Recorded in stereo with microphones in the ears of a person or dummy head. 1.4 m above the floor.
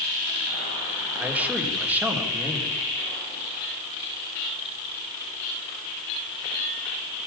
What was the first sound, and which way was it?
A man speaking, 10° right (ahead or behind).